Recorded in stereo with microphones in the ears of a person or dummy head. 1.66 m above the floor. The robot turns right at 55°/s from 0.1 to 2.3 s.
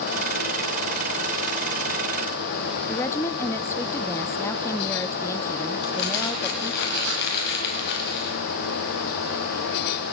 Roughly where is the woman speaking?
Centre.